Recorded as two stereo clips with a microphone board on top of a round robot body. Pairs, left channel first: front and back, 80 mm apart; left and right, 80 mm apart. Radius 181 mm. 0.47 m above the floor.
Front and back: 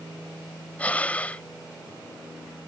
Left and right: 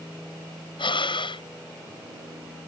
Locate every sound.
0.8 s breathing: 75° left